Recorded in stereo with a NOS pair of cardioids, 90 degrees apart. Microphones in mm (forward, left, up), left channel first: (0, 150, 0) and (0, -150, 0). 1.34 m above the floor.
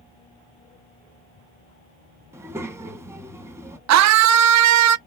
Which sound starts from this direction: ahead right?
A scream, at 3.9 s.